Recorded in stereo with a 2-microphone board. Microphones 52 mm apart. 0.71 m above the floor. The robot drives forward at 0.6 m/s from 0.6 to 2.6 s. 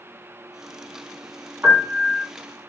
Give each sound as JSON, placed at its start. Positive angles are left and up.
{"t": 1.6, "sound": "a piano", "side_deg": -55, "distance_m": 1.9}